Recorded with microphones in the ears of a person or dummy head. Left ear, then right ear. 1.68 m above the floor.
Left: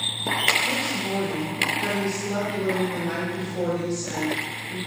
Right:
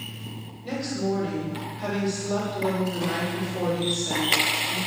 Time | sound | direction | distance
0.6 | a woman speaking | 20° left (ahead or behind) | 7 m